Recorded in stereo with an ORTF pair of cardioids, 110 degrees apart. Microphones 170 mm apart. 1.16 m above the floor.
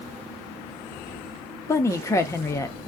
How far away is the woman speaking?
About 0.7 m.